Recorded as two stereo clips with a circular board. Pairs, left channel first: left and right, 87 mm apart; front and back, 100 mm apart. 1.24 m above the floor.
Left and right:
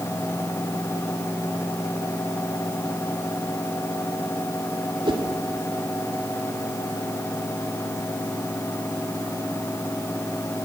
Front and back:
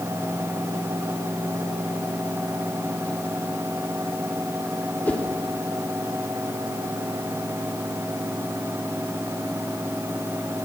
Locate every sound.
5.0 s a whoosh: 75° right, 3 m